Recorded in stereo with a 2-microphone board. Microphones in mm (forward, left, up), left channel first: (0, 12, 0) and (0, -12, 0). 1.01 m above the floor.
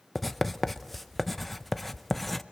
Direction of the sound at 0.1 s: 5° left (ahead or behind).